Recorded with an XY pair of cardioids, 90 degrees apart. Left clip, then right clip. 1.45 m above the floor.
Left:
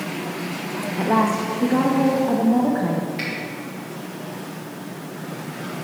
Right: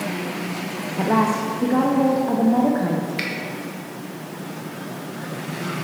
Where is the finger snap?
50° right, 1.5 m.